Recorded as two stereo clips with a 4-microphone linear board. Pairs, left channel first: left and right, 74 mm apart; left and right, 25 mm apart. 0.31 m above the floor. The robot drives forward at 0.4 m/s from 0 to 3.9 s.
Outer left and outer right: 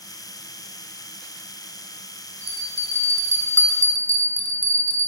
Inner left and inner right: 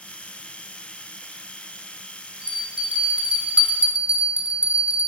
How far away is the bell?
About 0.7 m.